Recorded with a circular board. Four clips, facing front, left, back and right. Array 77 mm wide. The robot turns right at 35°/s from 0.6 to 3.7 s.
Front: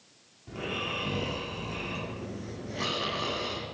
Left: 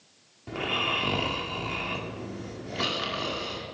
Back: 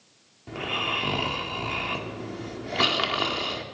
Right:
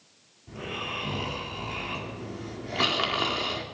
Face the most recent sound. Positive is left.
turn(degrees=-130)